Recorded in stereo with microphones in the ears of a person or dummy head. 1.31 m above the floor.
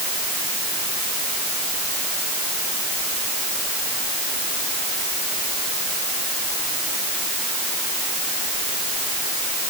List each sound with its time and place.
Only background noise.